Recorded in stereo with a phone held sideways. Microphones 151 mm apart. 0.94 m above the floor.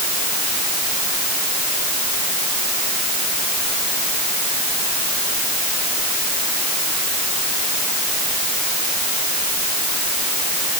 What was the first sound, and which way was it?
Only background noise.